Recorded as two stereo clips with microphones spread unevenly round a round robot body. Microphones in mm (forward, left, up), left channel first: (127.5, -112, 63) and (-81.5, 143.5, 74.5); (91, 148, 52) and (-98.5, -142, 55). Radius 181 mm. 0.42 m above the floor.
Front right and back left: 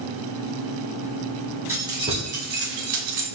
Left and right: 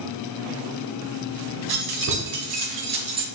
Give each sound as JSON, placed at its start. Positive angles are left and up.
{"t": 1.7, "sound": "keys jangling", "azimuth_deg": -145, "distance_m": 1.5}